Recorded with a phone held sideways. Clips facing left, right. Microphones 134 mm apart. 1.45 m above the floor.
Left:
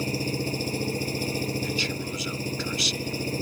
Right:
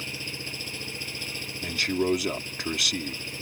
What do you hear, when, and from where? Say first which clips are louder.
0.0 s an engine running: left 12 dB; 40° left (ahead or behind)
1.6 s a man speaking: right 4 dB; 65° right (ahead or behind)